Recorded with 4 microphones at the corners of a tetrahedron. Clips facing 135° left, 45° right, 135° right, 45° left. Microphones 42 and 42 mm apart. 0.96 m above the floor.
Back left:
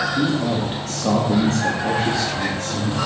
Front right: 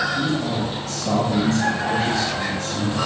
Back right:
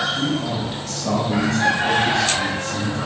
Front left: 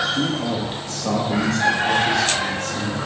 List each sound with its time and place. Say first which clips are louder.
0.1 s a man speaking: back left 2 dB, even; 85° left, 2 m; by 3.0 s 175° left, 2.5 m